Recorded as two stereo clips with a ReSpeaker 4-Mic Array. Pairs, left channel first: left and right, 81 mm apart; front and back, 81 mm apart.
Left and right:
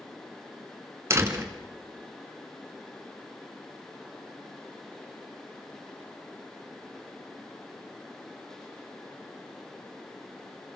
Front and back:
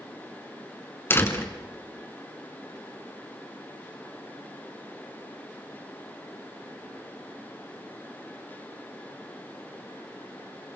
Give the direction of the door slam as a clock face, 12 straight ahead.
2 o'clock.